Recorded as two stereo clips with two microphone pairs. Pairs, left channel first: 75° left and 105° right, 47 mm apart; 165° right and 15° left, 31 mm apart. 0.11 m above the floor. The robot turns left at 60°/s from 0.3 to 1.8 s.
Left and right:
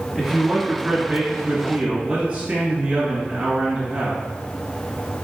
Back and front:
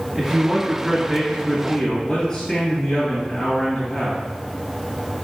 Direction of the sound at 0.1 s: 50° right.